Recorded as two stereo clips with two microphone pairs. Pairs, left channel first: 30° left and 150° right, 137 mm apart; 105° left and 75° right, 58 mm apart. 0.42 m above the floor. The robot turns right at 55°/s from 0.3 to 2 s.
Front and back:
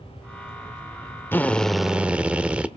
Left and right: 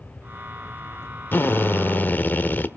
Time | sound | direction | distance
1.3 | a drill | 95° left | 1.0 m